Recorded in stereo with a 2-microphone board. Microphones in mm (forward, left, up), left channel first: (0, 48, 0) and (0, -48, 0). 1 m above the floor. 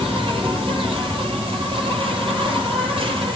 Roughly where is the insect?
Right.